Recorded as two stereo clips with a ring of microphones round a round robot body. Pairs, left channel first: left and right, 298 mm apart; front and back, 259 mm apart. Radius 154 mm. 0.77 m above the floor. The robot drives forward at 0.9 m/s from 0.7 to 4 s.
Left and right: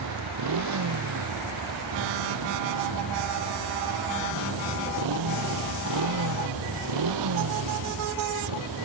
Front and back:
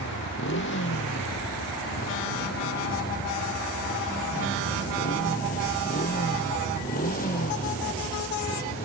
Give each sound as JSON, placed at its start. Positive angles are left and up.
{"t": 0.0, "sound": "a motorcycle", "azimuth_deg": -55}